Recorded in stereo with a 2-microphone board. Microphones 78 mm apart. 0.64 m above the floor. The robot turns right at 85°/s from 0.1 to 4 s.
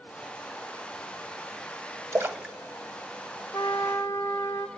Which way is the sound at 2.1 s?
40° right (ahead or behind).